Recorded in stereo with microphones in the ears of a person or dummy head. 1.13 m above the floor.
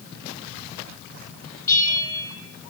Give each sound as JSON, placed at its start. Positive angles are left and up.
{"t": 1.7, "sound": "a bell", "side_deg": 20, "distance_m": 5.5}